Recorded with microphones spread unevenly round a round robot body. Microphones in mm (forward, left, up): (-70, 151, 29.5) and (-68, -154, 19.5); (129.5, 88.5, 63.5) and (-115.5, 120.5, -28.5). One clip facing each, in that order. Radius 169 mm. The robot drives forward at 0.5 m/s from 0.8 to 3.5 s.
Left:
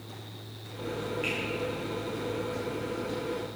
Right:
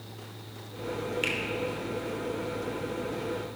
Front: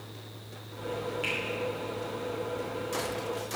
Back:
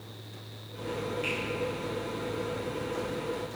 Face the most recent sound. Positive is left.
turn(degrees=-140)